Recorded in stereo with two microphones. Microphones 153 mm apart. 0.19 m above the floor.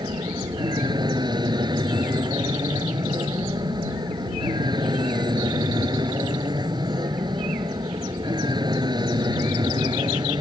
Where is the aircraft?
30° right (ahead or behind).